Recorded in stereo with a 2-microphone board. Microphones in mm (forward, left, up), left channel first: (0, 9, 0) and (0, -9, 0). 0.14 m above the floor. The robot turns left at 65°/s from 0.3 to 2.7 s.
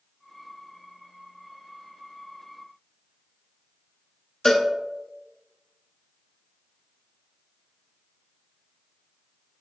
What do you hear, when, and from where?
4.5 s a cowbell: 30° left (ahead or behind), 0.7 m